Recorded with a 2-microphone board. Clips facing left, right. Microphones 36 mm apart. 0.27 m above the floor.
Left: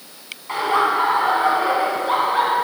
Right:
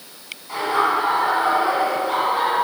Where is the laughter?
55° left (ahead or behind), 2.5 m; by 2.5 s 45° left (ahead or behind), 3.5 m.